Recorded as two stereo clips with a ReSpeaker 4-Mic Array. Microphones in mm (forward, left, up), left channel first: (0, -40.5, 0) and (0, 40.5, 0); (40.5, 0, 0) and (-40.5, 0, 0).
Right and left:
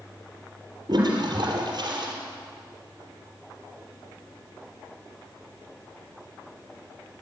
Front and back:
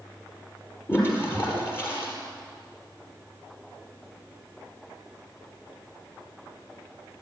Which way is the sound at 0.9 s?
60° left.